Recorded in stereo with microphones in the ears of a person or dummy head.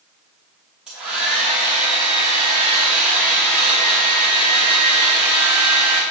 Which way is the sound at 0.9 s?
5° right (ahead or behind).